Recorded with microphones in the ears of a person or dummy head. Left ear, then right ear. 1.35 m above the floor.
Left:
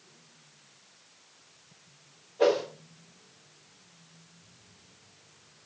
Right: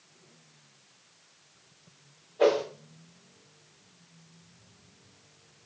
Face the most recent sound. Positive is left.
turn(degrees=-10)  # may be behind; listen again after turning